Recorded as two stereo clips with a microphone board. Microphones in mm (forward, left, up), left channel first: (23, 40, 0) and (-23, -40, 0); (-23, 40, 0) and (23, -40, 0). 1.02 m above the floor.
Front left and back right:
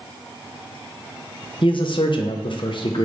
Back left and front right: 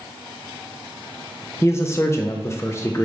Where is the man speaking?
65° left, 0.6 m.